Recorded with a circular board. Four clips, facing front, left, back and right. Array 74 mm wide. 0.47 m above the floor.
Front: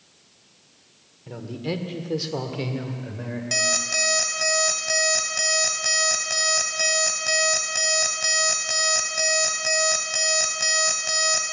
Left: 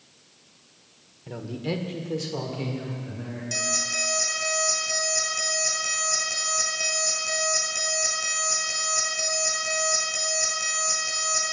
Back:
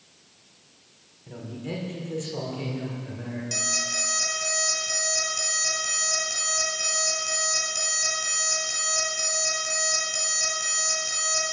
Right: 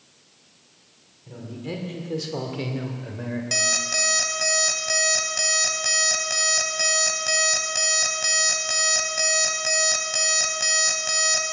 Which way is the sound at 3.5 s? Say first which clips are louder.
Even, front 6 dB; 45° right.